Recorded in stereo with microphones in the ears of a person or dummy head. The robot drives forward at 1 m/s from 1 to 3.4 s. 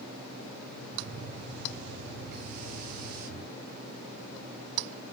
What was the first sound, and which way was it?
Only background noise.